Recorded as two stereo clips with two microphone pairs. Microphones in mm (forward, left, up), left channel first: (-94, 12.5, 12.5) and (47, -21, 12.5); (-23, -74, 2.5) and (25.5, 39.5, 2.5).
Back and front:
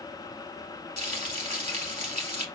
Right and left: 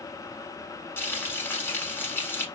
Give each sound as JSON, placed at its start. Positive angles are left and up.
{"t": 1.0, "sound": "frying", "azimuth_deg": -45, "distance_m": 0.9}